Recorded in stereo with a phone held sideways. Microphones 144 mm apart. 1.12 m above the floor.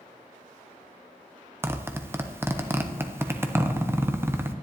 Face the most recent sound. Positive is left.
turn(degrees=-15)  # may be behind; listen again after turning